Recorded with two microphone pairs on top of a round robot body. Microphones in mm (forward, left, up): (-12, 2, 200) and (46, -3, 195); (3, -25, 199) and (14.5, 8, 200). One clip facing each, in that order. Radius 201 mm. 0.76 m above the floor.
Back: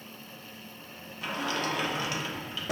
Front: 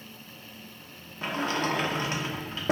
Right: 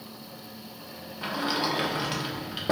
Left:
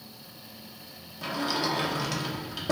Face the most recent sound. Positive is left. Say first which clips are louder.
# front 3 dB, right 1 dB
turn(degrees=-45)